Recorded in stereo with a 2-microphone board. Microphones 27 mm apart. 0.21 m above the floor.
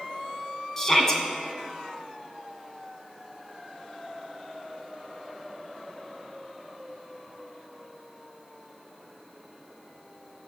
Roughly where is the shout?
Centre.